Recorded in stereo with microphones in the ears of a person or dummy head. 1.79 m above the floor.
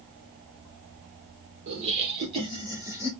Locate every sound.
1.7 s laughter: 45° right (ahead or behind), 1.1 m; by 3.1 s 15° right (ahead or behind), 1.3 m